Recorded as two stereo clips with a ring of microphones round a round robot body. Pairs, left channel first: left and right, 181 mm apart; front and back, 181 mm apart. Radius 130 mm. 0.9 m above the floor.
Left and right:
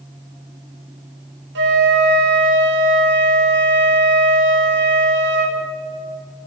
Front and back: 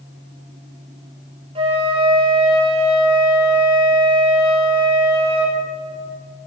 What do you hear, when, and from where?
1.6 s a flute: 115° right, 1.3 m